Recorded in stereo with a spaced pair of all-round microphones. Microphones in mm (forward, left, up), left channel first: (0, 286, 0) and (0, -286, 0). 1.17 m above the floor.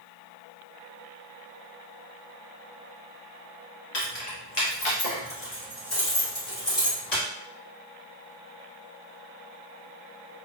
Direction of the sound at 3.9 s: 45° left (ahead or behind).